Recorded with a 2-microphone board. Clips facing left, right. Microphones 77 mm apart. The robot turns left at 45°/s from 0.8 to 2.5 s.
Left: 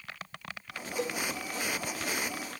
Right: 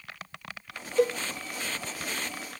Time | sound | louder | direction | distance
1.0 | a cowbell | right 10 dB | 50° right (ahead or behind) | 0.5 m